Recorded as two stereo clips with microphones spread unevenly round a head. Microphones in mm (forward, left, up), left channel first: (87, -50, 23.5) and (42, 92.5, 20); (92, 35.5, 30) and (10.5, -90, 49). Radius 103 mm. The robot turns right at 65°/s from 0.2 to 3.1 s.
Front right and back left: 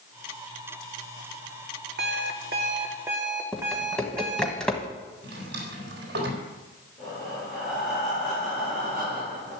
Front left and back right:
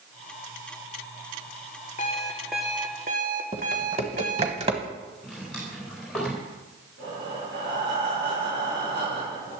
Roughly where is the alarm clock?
Behind left.